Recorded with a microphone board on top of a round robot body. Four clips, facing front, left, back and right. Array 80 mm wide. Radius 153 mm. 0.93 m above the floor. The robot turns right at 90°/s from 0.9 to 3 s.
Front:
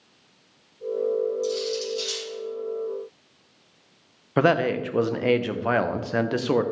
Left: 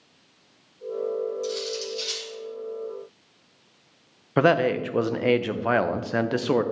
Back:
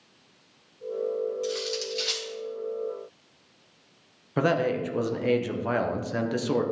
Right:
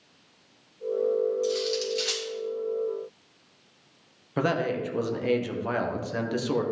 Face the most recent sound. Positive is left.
turn(degrees=50)